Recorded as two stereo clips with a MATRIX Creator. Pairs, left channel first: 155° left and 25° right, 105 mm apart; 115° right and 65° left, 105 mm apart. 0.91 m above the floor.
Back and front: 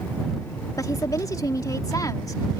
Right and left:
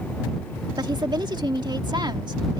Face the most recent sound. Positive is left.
turn(degrees=105)